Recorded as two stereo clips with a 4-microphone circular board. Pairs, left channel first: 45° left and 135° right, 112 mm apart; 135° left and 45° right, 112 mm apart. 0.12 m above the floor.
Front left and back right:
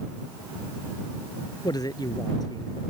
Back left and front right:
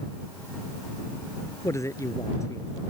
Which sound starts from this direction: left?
A man speaking, at 1.6 s.